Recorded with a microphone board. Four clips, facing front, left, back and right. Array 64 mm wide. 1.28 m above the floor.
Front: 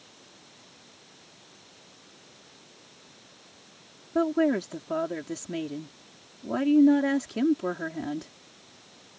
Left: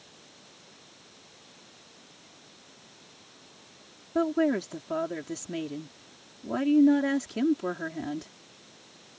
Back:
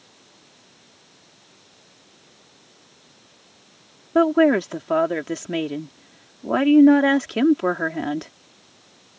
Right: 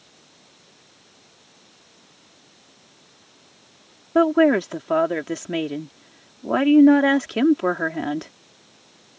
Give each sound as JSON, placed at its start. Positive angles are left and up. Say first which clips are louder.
{"t": 4.2, "sound": "a woman speaking", "louder": "right 9 dB, back 8 dB", "azimuth_deg": -130}